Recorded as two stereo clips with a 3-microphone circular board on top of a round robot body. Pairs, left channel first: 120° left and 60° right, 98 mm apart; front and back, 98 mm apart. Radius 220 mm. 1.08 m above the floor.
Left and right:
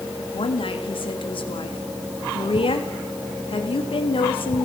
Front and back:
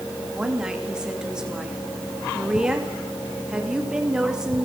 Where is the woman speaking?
100° left, 3 m.